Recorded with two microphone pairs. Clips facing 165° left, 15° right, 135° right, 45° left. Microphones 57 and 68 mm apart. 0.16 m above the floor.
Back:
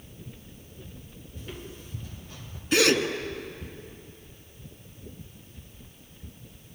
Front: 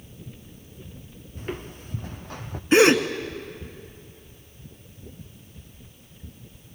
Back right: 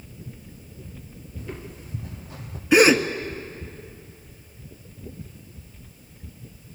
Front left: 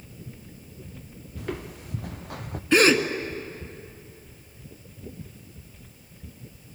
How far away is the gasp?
About 1.5 m.